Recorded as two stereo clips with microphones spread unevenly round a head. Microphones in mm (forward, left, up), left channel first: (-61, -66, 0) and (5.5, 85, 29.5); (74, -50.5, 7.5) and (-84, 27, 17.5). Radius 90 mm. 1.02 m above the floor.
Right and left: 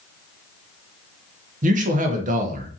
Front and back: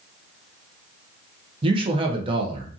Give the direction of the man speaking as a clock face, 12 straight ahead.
9 o'clock.